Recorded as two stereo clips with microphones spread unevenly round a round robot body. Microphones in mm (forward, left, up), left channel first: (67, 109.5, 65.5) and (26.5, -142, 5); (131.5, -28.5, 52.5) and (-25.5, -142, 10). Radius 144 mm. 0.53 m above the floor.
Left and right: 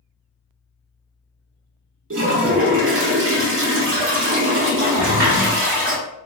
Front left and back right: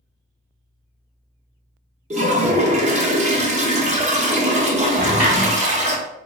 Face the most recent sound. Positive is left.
turn(degrees=-120)